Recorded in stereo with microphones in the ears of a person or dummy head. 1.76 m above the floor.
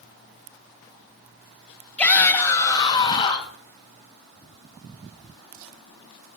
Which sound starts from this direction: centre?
A shout, at 2.0 s.